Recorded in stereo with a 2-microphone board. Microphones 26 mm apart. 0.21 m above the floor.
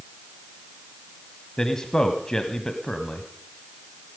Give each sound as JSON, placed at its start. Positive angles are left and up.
{"t": 1.6, "sound": "a man speaking", "side_deg": 25, "distance_m": 1.0}